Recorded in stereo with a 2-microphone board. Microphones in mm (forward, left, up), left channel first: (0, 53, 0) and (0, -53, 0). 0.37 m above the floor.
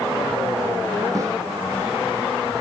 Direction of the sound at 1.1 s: 30° right (ahead or behind).